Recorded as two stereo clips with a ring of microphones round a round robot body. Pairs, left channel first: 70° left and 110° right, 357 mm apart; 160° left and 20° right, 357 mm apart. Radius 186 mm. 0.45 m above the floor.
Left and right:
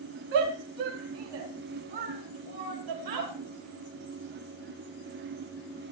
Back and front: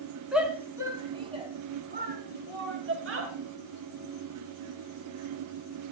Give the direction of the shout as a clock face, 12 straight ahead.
4 o'clock.